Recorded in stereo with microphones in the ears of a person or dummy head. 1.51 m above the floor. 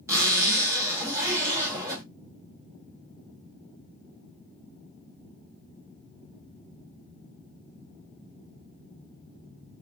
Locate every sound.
0.1 s a zipper: 15° right (ahead or behind), 1.3 m